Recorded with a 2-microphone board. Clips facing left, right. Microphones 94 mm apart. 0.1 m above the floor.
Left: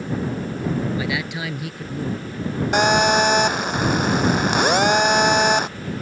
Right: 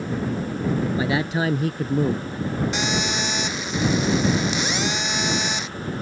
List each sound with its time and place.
1.0 s a man speaking: 35° right (ahead or behind); by 2.3 s 50° right (ahead or behind)
2.7 s a phone buzzing: 55° left (ahead or behind)